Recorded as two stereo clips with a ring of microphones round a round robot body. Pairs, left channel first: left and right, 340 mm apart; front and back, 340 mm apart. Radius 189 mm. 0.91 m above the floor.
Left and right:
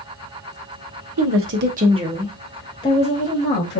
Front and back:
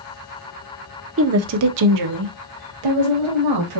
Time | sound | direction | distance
1.2 | a woman speaking | 130° right | 0.9 m